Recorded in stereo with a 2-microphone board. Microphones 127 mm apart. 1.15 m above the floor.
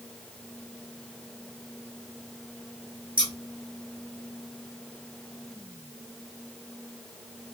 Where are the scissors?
40° right (ahead or behind), 1.1 m.